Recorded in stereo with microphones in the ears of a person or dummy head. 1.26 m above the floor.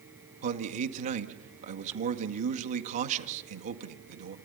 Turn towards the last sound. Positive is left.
turn(degrees=-40)  # may be behind; listen again after turning